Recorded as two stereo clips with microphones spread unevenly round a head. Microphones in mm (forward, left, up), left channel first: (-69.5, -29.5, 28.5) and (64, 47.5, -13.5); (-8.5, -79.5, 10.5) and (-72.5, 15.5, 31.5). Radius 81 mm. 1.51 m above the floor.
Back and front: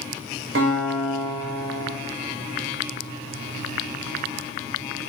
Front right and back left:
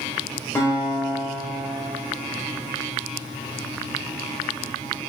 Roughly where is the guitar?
Ahead left.